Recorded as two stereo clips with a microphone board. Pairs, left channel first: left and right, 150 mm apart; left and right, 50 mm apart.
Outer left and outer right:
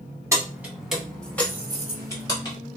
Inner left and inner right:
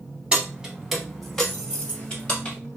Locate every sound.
0.3 s keys jangling: 20° right (ahead or behind), 0.8 m; by 2.5 s 25° left (ahead or behind), 1.5 m